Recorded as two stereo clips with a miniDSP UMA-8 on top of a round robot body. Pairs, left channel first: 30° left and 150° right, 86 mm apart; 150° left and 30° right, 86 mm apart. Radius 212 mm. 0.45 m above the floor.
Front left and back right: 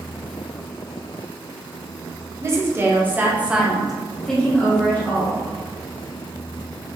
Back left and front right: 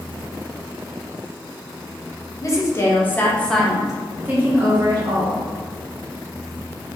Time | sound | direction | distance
2.4 | a woman speaking | 175° left | 1.4 m